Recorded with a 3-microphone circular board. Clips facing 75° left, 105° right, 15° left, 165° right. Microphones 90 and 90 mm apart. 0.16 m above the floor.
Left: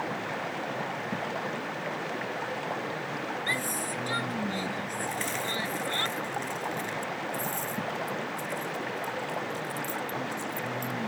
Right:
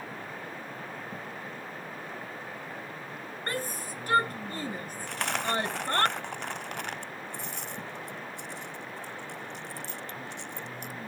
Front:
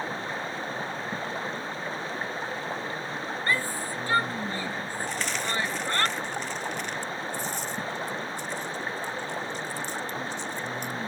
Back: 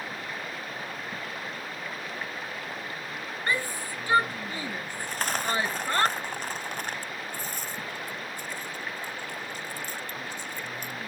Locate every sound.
0.0 s running water: 75° left
3.5 s a shout: 100° right
5.1 s a dropped coin: 125° right